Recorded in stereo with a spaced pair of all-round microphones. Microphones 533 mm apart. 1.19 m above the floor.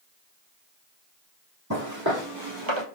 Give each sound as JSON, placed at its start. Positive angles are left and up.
{"t": 1.7, "sound": "footsteps", "side_deg": -30, "distance_m": 2.5}